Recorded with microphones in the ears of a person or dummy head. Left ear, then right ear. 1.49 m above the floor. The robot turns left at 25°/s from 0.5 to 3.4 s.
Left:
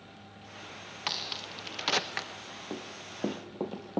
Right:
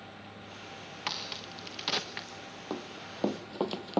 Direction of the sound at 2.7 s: 45° right (ahead or behind).